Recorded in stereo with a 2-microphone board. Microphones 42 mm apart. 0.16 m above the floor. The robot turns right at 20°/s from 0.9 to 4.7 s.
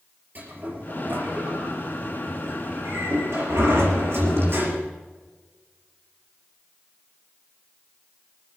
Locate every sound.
0.3 s a sliding door: 50° right (ahead or behind), 4.5 m; by 4.9 s 55° right (ahead or behind), 4.5 m